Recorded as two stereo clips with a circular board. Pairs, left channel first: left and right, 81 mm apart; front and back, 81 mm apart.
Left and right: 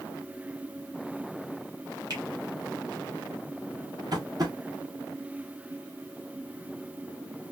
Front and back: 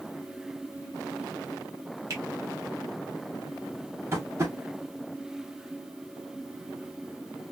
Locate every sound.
2.1 s a finger snap: 130° right, 3 m
4.1 s tapping: 125° right, 1.9 m